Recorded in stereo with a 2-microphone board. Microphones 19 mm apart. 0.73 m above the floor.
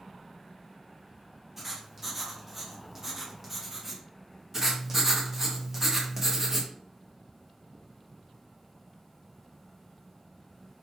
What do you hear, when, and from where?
1.6 s writing: 20° right (ahead or behind), 0.7 m
4.5 s writing: 20° right (ahead or behind), 0.7 m